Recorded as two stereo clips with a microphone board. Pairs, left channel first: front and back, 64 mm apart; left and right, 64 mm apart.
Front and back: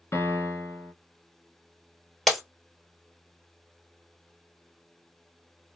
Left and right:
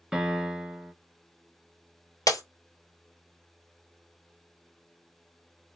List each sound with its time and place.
0.1 s a piano: 10° right, 0.8 m
2.3 s breaking glass: 85° left, 0.9 m